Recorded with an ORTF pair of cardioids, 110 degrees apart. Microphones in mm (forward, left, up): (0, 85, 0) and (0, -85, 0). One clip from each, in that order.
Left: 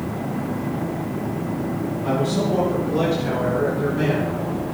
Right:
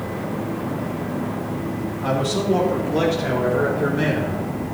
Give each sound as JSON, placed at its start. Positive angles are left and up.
{"t": 2.0, "sound": "a man speaking", "azimuth_deg": -45, "distance_m": 2.5}